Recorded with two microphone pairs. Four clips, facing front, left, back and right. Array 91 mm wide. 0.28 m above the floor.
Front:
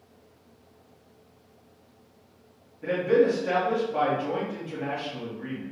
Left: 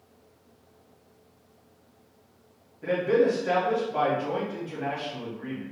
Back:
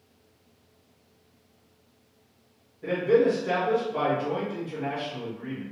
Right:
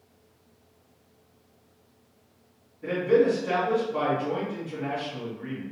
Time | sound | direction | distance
2.8 | a man speaking | 55° left | 1.8 m